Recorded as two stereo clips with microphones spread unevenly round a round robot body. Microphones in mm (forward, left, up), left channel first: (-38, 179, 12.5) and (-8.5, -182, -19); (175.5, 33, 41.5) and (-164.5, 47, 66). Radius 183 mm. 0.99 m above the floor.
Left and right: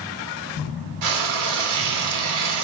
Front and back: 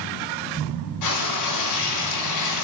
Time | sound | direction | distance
1.0 | frying | 40° right | 3 m